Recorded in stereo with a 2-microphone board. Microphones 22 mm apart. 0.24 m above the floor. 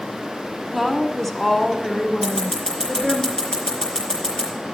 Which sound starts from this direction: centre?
A woman speaking, at 0.7 s.